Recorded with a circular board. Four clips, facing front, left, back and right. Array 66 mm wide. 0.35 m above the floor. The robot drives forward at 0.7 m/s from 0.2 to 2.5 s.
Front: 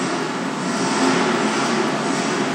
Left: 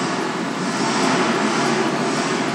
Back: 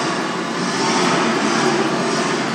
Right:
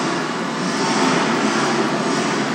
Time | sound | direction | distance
0.0 | an engine running | 170° right | 2 m